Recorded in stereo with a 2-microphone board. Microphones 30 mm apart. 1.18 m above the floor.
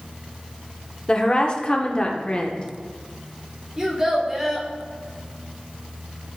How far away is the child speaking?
About 2.5 m.